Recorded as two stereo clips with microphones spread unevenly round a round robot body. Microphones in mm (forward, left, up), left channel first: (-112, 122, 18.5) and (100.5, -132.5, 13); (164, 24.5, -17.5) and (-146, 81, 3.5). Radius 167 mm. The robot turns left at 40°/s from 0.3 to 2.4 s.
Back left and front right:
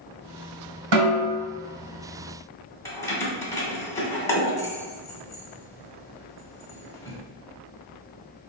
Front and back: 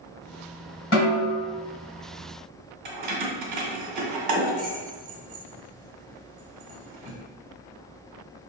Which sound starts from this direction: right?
A snare drum, at 0.9 s.